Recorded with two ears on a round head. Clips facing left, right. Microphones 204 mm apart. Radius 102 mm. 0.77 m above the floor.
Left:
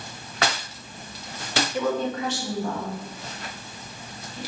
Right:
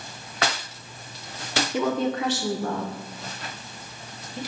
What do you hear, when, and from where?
1.7 s a woman speaking: 65° right (ahead or behind), 1.4 m; by 4.4 s 35° right (ahead or behind), 3 m